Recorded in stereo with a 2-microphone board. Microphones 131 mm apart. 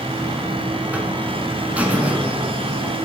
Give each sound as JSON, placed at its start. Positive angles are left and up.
{"t": 0.1, "sound": "a buzzer", "side_deg": -10, "distance_m": 1.0}